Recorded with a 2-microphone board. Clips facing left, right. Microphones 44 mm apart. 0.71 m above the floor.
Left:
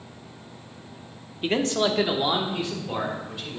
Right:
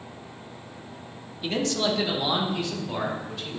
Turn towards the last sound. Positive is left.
turn(degrees=15)  # may be behind; listen again after turning